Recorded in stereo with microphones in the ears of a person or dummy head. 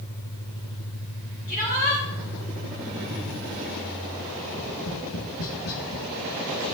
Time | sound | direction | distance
1.5 | a shout | 55° left (ahead or behind) | 6 m
4.4 | tapping | 80° left | 2.5 m